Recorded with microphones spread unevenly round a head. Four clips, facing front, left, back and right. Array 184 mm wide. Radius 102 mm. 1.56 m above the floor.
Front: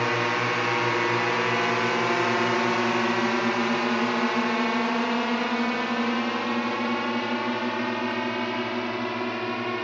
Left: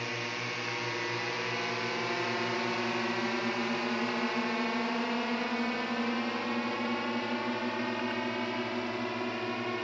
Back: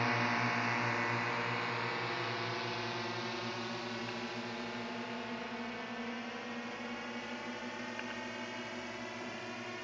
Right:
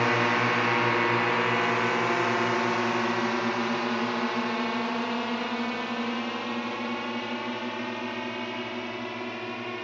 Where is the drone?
55° right; by 9.8 s 5° left.